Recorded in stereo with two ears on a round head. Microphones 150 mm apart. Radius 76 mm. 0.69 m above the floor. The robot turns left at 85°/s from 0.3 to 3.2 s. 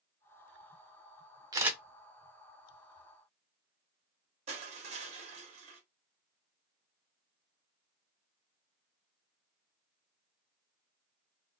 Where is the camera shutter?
25° right (ahead or behind), 0.6 m; by 1.8 s centre (ahead or behind), 0.6 m.